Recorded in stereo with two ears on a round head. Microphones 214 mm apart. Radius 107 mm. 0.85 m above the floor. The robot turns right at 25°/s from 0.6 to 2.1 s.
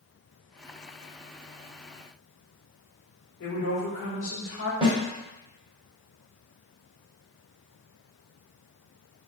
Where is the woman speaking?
60° left (ahead or behind), 1.2 m.